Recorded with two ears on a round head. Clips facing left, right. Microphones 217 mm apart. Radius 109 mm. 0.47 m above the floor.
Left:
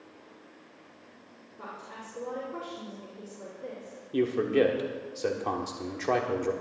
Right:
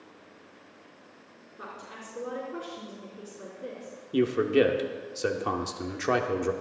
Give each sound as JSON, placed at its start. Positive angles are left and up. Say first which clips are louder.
{"t": 1.6, "sound": "a woman speaking", "louder": "even", "side_deg": -10, "distance_m": 4.5}
{"t": 4.1, "sound": "a man speaking", "louder": "right 2 dB", "side_deg": -15, "distance_m": 1.0}